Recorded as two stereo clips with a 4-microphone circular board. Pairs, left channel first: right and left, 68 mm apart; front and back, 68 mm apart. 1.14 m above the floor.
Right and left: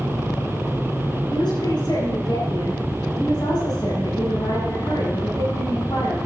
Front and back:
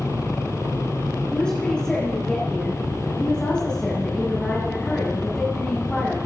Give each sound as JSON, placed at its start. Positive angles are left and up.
{"t": 1.3, "sound": "a woman speaking", "azimuth_deg": -75, "distance_m": 7.0}